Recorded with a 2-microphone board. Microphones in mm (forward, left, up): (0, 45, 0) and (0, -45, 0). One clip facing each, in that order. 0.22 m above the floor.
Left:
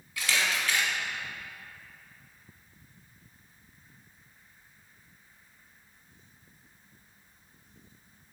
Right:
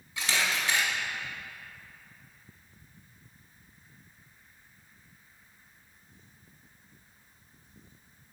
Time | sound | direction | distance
0.2 | a camera shutter | 25° right (ahead or behind) | 0.9 m